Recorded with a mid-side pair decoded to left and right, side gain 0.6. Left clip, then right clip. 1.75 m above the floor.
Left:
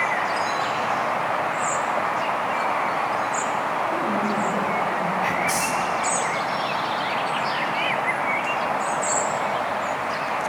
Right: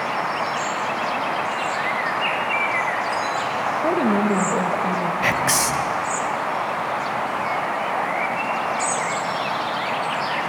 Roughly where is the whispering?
Ahead right.